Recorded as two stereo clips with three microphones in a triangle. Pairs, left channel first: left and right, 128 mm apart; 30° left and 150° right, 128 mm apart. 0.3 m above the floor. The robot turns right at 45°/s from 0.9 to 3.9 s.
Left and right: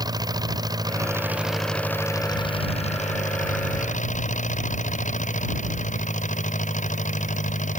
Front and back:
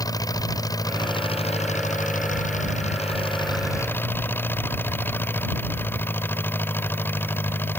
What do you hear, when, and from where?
0.0 s an engine running: 30° right; by 7.8 s 105° left